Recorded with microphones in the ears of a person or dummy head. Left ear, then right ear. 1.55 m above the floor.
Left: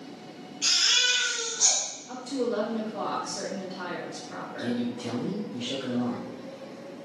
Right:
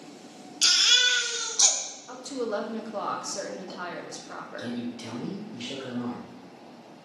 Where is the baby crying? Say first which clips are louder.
Right 3 dB; 45° right (ahead or behind), 0.6 m.